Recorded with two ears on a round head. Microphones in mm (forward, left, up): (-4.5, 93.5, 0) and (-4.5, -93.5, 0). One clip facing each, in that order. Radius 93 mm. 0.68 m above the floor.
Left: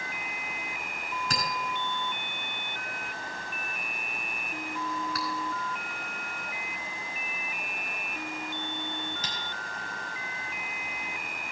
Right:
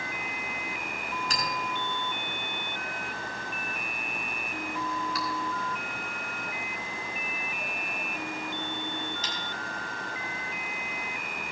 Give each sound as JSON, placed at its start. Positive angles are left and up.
{"t": 1.3, "sound": "a clink", "side_deg": 45, "distance_m": 4.0}